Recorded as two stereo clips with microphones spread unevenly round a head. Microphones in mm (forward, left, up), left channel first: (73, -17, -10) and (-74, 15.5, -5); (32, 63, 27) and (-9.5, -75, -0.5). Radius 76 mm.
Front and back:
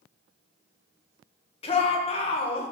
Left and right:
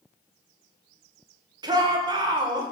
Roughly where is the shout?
Ahead right.